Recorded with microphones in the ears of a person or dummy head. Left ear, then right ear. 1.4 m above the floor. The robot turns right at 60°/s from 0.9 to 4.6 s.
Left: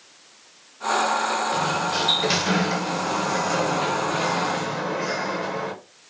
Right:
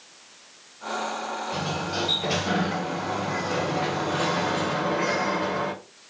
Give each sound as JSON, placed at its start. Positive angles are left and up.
{"t": 1.5, "sound": "a sliding door", "azimuth_deg": 5, "distance_m": 0.8}